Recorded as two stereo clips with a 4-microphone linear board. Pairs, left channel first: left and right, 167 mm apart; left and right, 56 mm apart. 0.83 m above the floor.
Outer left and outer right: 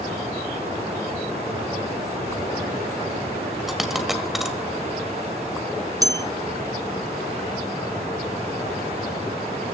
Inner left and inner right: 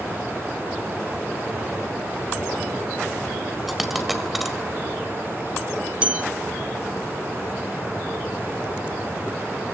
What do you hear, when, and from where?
3.7 s a dropped coin: centre (ahead or behind), 1.8 m
6.0 s a bell: 20° right (ahead or behind), 0.6 m